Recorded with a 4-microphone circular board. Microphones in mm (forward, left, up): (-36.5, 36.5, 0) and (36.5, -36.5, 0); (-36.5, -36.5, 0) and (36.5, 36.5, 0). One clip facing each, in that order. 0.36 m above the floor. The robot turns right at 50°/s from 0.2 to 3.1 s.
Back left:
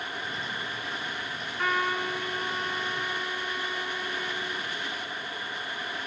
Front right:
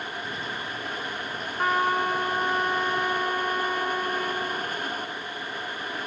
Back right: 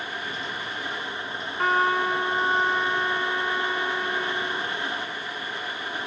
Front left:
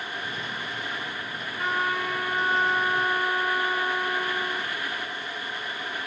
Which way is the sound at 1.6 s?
100° right.